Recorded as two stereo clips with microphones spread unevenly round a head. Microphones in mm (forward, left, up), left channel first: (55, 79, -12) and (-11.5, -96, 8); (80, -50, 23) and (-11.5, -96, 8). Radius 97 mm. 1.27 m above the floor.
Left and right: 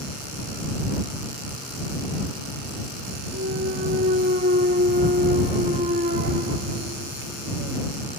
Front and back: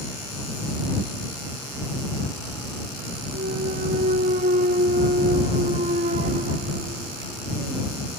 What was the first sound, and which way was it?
A clunk, 165° right.